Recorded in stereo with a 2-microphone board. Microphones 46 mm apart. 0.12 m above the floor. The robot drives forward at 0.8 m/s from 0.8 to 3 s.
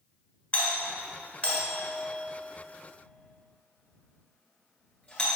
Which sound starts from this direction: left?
A doorbell, at 0.5 s.